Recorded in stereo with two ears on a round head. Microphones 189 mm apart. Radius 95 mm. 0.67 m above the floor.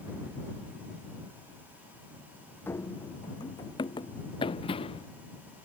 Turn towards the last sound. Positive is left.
turn(degrees=25)  # may be behind; listen again after turning